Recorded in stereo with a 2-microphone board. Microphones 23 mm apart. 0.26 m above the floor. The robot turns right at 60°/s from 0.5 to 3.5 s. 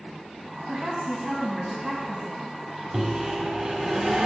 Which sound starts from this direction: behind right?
A microwave, at 2.9 s.